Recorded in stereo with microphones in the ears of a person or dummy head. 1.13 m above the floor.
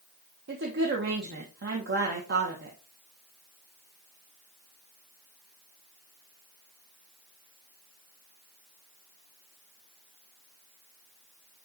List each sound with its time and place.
0.5 s a woman speaking: 50° right (ahead or behind), 1.1 m